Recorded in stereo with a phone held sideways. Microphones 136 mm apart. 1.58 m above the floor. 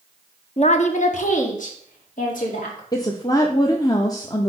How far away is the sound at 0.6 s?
About 0.7 m.